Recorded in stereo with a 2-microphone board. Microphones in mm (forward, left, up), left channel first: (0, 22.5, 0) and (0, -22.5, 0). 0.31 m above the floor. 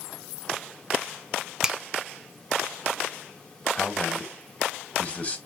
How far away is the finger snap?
About 0.7 m.